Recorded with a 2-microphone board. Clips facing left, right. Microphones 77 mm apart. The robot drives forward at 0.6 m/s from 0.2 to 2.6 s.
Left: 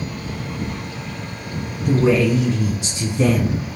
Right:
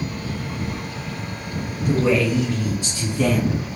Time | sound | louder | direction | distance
1.9 | a man speaking | left 3 dB | 25° left (ahead or behind) | 1.1 m